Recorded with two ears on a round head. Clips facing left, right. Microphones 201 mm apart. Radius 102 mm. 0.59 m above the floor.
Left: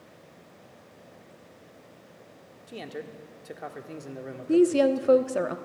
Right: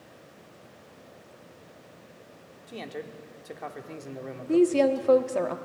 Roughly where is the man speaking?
Centre.